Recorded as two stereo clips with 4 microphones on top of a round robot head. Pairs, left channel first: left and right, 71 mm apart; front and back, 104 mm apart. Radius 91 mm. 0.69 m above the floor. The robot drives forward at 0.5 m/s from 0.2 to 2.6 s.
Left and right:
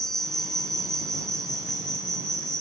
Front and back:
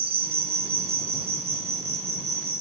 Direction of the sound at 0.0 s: 175° left.